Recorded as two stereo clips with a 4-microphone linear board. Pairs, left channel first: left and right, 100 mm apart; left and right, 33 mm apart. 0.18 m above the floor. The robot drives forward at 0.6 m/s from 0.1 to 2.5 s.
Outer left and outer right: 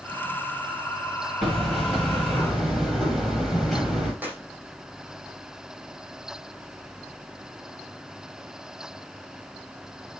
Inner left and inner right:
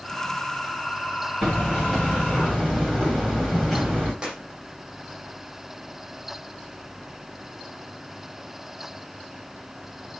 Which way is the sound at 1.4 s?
Centre (ahead or behind).